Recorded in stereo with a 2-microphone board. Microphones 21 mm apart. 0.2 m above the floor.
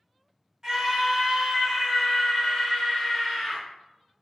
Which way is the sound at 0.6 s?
20° right (ahead or behind).